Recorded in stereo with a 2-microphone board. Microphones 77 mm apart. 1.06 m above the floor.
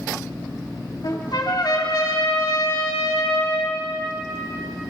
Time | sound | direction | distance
1.0 | a trumpet | 65° left (ahead or behind) | 3.5 m